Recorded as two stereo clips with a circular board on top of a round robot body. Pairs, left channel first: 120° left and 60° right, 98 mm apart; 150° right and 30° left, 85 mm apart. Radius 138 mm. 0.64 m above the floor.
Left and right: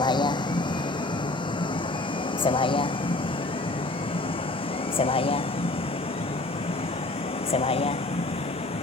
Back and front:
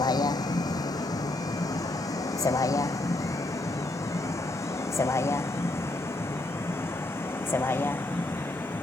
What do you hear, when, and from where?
0.0 s a vehicle: 165° left; by 8.8 s 140° left